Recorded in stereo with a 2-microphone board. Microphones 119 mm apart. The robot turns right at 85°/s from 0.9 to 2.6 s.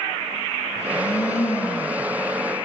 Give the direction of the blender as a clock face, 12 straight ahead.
10 o'clock.